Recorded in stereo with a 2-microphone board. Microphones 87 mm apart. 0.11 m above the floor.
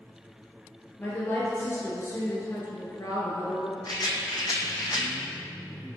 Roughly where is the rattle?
Left.